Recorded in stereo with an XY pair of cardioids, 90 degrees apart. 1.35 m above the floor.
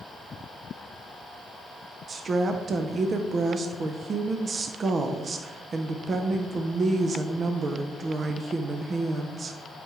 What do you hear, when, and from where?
2.1 s a woman speaking: 45° right, 0.8 m